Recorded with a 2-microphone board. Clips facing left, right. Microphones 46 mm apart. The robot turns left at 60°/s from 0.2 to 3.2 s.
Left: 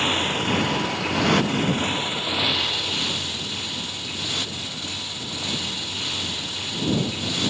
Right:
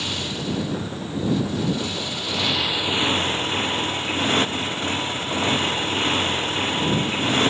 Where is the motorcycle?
140° left; by 7.5 s 40° right.